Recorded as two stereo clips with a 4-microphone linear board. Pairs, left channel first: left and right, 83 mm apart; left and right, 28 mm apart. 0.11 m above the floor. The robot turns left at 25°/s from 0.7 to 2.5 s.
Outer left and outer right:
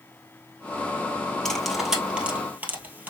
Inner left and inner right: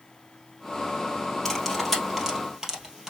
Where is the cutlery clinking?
5° left (ahead or behind), 1.5 m; by 3.1 s 20° right (ahead or behind), 1.5 m.